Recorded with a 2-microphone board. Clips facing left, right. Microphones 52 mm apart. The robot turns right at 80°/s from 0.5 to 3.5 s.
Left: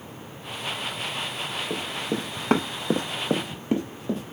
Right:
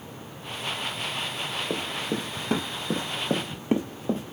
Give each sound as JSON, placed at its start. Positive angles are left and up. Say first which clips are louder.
{"t": 1.7, "sound": "running footsteps", "louder": "left 1 dB", "side_deg": -35, "distance_m": 0.9}